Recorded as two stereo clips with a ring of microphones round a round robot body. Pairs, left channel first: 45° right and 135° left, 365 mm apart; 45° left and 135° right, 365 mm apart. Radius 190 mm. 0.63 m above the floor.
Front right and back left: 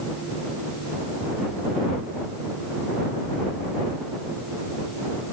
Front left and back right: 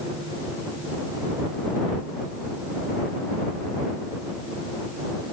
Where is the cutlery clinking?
No cutlery clinking in this recording.